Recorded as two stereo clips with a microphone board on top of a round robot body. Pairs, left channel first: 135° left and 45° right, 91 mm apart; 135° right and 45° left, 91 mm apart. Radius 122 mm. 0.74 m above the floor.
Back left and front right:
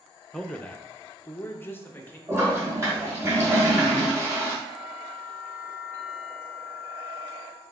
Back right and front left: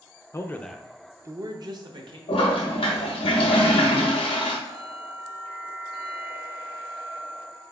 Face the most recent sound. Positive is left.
turn(degrees=15)